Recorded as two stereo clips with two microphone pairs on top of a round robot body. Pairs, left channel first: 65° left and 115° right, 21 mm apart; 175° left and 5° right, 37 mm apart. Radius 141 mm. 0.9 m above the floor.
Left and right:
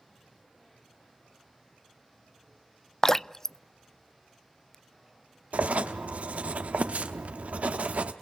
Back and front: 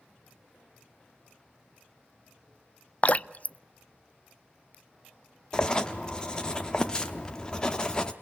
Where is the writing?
120° right, 0.7 m.